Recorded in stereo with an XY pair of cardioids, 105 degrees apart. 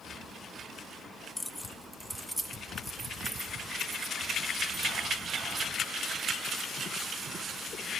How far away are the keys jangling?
About 0.8 m.